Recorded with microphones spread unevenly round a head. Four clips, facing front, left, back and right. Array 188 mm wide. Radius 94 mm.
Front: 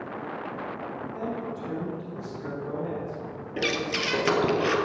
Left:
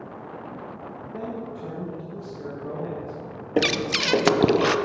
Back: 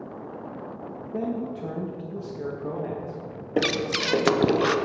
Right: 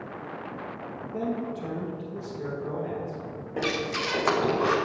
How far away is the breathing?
About 0.8 m.